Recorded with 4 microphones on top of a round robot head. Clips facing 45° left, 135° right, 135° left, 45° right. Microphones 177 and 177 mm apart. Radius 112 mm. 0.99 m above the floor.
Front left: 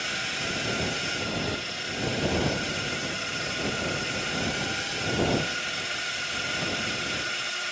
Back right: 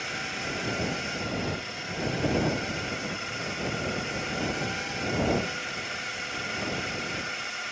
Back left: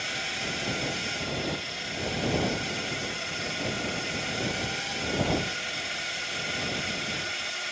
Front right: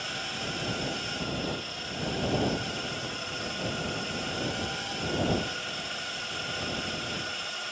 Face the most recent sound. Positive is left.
turn(degrees=65)